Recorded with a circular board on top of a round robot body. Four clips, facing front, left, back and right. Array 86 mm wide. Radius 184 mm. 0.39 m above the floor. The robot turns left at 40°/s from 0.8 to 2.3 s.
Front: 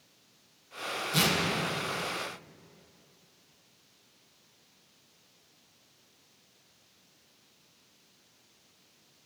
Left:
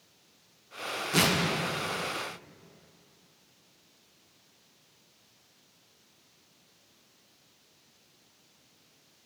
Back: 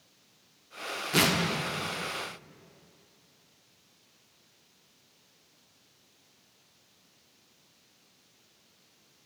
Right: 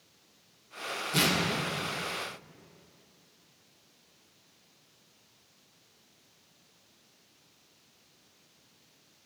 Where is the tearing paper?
155° left, 1.1 m; by 1.4 s 145° left, 1.1 m.